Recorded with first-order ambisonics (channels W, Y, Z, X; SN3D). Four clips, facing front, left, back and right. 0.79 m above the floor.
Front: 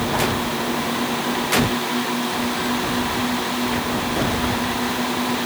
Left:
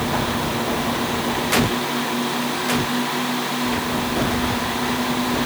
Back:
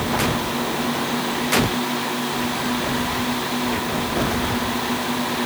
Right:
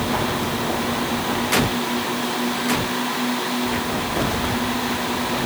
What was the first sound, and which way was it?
Only background noise.